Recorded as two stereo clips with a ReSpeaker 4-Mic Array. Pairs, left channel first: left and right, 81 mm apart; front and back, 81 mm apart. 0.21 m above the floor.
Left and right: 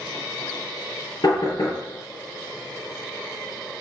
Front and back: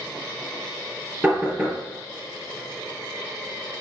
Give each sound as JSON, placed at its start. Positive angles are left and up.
{"t": 1.2, "sound": "knocking", "azimuth_deg": 115, "distance_m": 3.5}